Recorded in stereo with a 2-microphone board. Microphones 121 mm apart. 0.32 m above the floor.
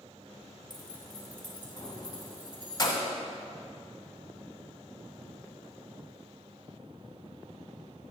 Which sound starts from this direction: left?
Keys jangling, at 0.7 s.